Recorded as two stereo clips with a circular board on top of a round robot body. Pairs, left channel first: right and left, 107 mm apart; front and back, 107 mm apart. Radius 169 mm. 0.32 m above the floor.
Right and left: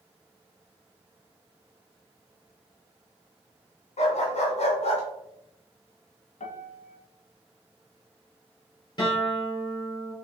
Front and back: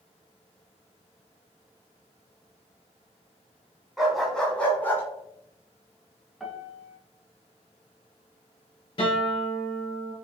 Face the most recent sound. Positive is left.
turn(degrees=-40)